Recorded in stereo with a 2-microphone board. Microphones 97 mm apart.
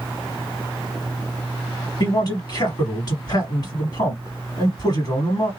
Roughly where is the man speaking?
Left.